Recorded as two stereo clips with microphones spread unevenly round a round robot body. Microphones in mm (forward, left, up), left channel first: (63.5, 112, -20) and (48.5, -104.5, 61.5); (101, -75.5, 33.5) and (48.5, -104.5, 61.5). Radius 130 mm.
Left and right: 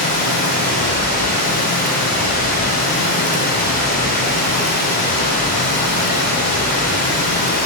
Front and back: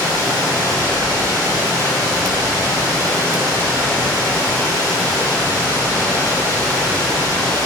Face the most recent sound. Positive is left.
turn(degrees=145)